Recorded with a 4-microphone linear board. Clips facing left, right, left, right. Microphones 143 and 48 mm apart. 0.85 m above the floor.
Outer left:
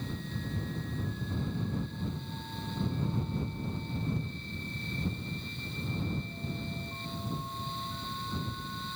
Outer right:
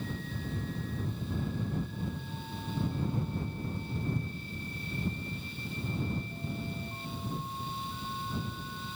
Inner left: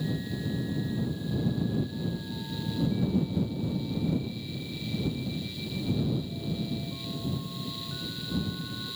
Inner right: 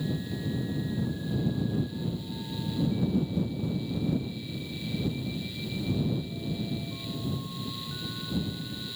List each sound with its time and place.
Only background noise.